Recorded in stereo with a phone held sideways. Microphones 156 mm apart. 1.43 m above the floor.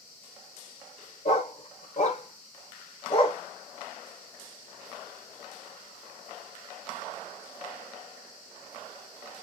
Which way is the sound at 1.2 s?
50° left (ahead or behind).